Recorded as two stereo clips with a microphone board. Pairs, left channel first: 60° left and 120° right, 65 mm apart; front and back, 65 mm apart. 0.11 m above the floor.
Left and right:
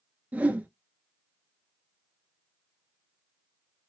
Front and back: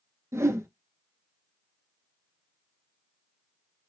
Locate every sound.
0.3 s a whoosh: 175° right, 0.6 m